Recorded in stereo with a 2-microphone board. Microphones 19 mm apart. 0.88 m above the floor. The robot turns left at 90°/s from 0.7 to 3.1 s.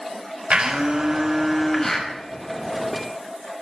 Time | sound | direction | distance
0.5 | a blender | 105° right | 4.5 m